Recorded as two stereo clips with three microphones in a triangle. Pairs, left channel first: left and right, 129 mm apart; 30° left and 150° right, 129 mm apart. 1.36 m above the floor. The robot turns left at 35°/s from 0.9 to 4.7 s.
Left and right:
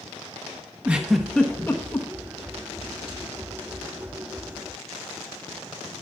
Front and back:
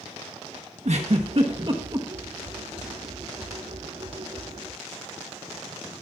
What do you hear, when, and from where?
0.8 s a giggle: 170° right, 1.2 m; by 2.1 s 150° left, 1.2 m